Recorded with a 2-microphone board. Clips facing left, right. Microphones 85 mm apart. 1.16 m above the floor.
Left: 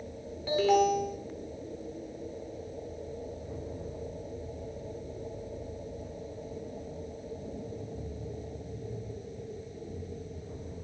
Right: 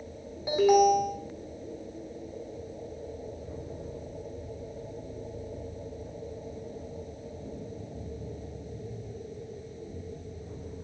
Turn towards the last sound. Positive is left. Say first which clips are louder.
# right 4 dB
turn(degrees=-15)  # may be behind; listen again after turning